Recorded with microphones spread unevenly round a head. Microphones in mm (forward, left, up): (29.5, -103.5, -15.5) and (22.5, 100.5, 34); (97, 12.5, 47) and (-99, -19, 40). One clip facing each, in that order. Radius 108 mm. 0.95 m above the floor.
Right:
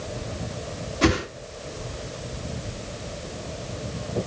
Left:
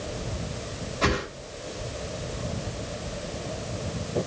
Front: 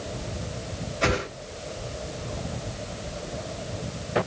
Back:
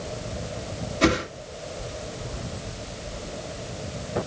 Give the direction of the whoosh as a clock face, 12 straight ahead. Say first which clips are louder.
Right 6 dB, back 5 dB; 4 o'clock.